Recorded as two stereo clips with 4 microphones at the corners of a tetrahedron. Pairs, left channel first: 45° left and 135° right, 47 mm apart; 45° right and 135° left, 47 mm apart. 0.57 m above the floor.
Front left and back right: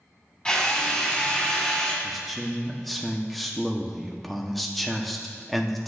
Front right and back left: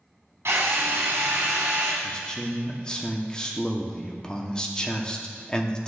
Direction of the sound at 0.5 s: 115° left.